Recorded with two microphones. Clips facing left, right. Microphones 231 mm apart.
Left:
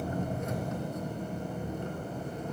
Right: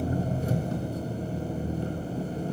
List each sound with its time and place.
0.0 s an engine running: 35° right (ahead or behind), 3 m